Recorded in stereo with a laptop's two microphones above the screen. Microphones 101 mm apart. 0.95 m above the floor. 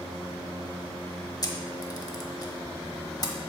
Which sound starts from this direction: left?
A camera shutter, at 1.4 s.